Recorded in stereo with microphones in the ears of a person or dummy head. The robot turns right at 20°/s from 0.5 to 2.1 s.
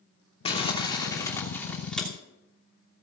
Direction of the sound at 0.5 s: 140° left.